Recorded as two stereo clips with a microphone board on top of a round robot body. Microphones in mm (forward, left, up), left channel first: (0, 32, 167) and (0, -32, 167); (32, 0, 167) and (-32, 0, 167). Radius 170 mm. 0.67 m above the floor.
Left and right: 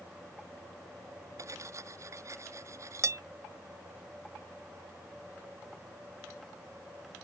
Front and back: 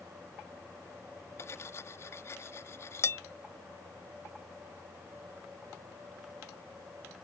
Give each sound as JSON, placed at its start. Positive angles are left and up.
{"t": 1.4, "sound": "cutlery clinking", "azimuth_deg": -50}